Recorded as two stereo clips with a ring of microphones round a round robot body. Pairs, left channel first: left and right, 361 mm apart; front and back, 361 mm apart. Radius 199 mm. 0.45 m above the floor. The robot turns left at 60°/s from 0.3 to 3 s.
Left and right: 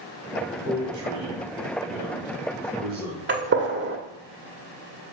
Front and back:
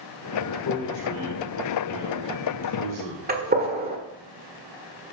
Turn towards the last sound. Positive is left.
turn(degrees=-130)